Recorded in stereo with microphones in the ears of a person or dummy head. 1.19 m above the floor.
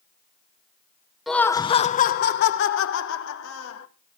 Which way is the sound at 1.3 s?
Centre (ahead or behind).